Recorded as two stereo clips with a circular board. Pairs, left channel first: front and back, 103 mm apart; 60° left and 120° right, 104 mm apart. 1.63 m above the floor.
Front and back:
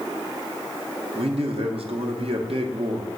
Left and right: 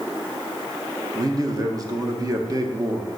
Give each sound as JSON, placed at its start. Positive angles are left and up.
{"t": 1.1, "sound": "a man speaking", "azimuth_deg": -170, "distance_m": 1.3}